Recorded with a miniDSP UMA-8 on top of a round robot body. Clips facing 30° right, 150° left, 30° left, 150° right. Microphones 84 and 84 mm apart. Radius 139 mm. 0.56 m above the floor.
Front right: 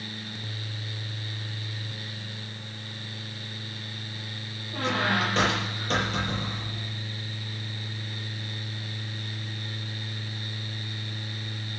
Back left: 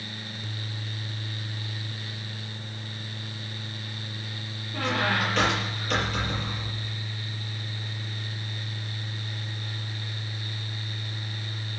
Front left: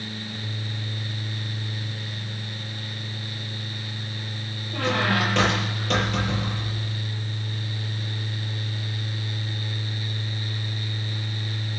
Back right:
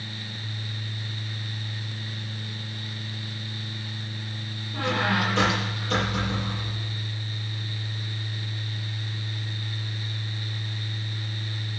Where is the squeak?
25° left, 7.5 m.